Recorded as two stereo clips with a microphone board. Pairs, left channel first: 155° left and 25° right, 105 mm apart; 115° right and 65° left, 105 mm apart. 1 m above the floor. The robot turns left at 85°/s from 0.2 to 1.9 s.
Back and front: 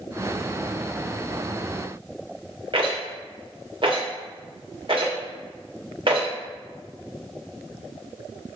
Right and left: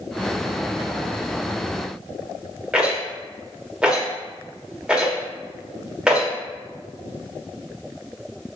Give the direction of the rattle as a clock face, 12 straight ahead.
12 o'clock.